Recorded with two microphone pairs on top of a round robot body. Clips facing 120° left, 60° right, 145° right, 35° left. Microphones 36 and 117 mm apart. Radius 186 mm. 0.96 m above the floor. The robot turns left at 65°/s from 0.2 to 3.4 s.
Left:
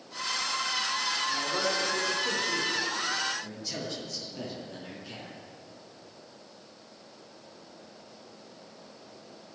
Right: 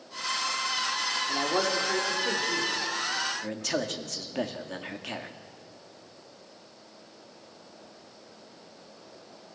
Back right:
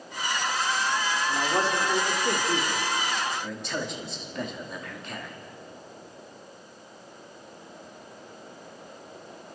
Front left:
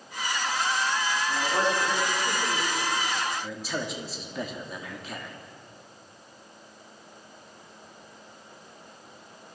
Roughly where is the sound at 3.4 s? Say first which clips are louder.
Right 7 dB, even; ahead right.